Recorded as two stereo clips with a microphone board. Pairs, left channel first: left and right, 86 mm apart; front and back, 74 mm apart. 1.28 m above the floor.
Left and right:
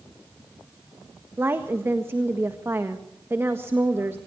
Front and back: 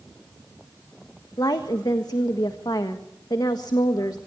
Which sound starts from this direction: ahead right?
A woman speaking, at 1.4 s.